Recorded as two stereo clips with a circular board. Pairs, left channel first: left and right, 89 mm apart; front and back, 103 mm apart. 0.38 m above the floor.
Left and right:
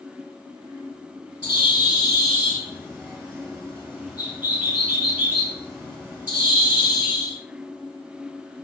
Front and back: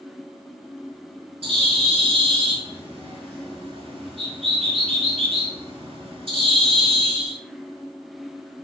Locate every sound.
1.4 s a bird: 155° right, 1.1 m